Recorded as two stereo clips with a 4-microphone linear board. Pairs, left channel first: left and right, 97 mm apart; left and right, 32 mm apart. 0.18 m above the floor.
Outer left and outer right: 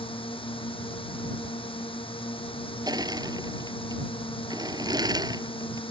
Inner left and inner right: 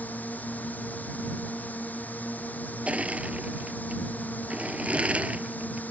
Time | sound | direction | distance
0.0 | a drone | 65° left (ahead or behind) | ?
2.9 | crushing | 45° right (ahead or behind) | ?